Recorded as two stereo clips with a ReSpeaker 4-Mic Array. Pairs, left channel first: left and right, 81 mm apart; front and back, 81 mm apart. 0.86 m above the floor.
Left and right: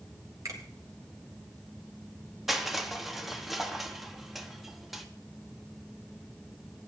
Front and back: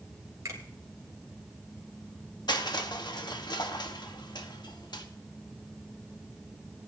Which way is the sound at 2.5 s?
5° right.